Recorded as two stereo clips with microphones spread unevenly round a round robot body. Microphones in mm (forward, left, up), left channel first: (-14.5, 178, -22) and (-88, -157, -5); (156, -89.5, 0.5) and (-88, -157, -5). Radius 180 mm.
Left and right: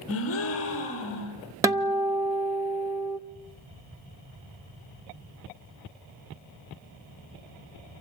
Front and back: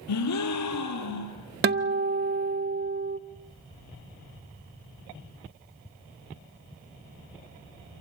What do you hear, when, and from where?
0.1 s a gasp: 20° left, 4.5 m
1.6 s a guitar: straight behind, 0.6 m